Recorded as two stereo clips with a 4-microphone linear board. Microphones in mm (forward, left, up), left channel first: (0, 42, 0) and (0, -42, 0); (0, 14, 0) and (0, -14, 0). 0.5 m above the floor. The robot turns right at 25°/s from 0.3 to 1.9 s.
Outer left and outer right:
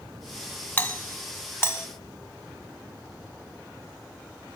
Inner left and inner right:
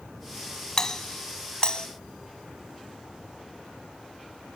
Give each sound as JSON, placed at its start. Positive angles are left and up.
{"t": 0.8, "sound": "a doorbell", "side_deg": 15, "distance_m": 1.4}